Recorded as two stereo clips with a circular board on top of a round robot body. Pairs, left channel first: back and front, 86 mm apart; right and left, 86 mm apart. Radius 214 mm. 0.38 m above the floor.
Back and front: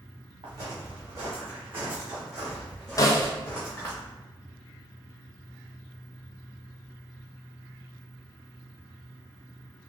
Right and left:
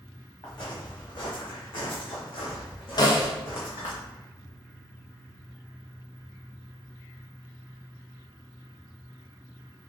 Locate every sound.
0.4 s footsteps: 50° right, 1.6 m; by 4.0 s 115° right, 1.7 m
3.0 s a snare drum: 130° right, 0.9 m